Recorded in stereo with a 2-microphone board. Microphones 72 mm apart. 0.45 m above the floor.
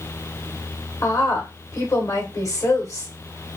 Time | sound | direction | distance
1.0 | a woman speaking | 50° left (ahead or behind) | 1.1 m